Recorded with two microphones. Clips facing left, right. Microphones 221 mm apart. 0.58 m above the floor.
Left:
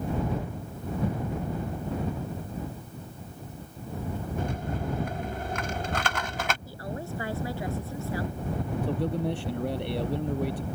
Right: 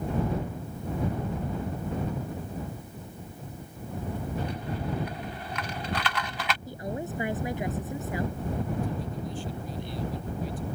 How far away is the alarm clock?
No alarm clock in this recording.